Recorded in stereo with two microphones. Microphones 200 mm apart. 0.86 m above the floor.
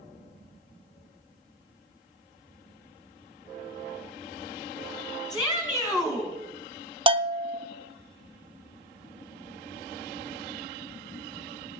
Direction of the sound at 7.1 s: 30° right (ahead or behind).